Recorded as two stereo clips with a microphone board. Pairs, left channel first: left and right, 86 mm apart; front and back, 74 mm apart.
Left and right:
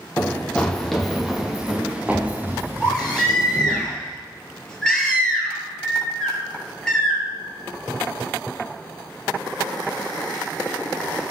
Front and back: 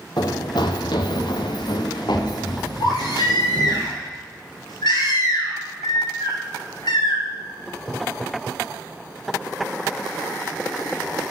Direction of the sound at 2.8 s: 10° left.